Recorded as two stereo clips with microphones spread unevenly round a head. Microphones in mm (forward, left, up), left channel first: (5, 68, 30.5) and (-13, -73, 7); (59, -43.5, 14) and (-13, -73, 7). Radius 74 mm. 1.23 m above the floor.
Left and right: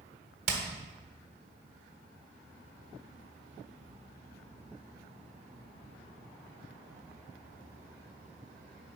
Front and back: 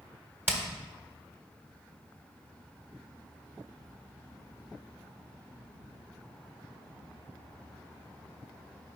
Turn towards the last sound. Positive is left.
turn(degrees=-95)